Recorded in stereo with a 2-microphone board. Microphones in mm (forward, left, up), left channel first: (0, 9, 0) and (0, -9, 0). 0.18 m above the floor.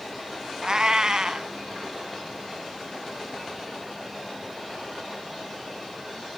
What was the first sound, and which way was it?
A cat meowing, 40° right (ahead or behind).